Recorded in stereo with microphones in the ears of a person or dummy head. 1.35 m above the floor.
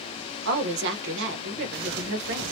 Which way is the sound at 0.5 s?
65° right (ahead or behind).